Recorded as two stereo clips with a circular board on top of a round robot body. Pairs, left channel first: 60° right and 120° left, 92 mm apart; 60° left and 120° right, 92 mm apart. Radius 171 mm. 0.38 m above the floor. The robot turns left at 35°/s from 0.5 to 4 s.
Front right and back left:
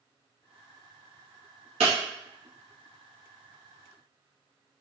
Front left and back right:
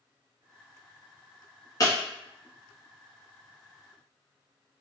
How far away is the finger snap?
I don't hear a finger snap.